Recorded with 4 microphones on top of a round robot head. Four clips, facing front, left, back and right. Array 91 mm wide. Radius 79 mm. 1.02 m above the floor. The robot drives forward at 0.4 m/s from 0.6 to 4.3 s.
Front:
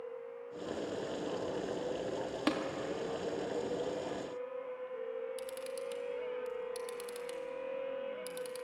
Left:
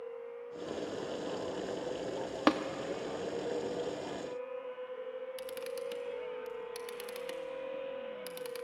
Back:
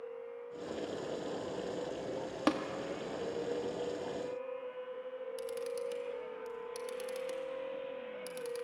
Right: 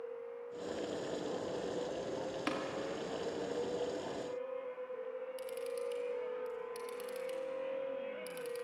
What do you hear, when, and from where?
2.5 s tapping: 110° left, 0.7 m; by 2.6 s 115° left, 0.7 m
5.4 s a camera shutter: 110° left, 1.2 m